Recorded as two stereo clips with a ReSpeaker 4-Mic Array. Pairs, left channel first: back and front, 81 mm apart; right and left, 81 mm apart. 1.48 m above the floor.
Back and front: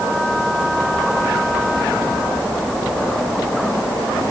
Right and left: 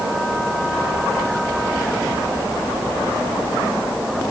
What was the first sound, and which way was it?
Only background noise.